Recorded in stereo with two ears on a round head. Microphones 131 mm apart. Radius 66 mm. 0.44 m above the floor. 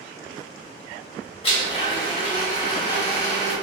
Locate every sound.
1.4 s a blender: 45° left (ahead or behind), 1.5 m